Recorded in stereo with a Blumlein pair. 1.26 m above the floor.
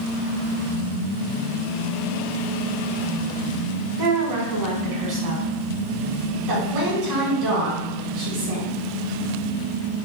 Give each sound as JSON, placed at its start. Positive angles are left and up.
{"t": 4.0, "sound": "a woman speaking", "azimuth_deg": -40, "distance_m": 1.4}
{"t": 6.5, "sound": "a woman speaking", "azimuth_deg": -40, "distance_m": 1.5}